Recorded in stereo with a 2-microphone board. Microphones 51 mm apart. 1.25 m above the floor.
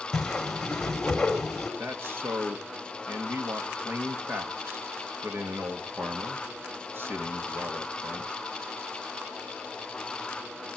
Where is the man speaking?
50° right (ahead or behind), 2 m.